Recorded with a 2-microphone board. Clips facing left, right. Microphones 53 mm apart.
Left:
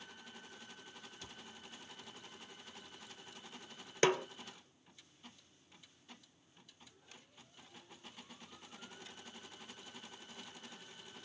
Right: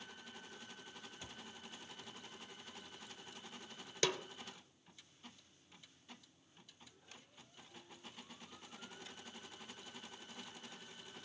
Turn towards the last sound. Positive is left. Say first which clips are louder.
# left 7 dB
turn(degrees=35)  # may be behind; listen again after turning